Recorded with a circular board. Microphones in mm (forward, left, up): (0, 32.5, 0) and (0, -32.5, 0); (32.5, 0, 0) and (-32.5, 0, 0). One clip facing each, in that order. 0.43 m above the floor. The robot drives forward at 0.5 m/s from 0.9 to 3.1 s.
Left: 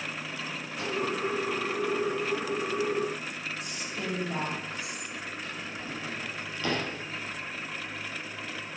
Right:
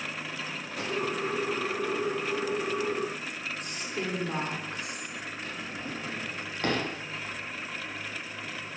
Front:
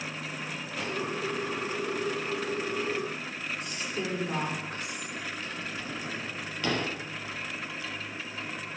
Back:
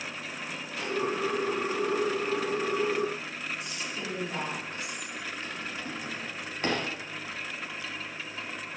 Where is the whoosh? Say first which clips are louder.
Even, back 2 dB; 85° right, 6.5 m.